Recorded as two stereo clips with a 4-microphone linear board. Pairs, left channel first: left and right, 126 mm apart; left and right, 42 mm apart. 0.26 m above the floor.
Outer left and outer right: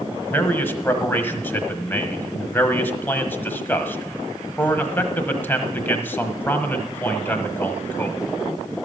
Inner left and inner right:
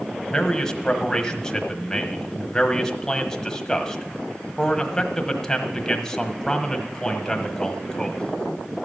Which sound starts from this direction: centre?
A man speaking, at 0.3 s.